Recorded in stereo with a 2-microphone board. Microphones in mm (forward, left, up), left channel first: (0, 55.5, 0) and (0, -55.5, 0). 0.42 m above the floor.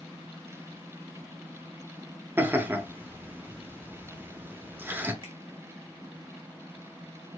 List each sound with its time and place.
2.4 s laughter: 20° right (ahead or behind), 0.7 m
5.2 s a finger snap: 45° right (ahead or behind), 1.4 m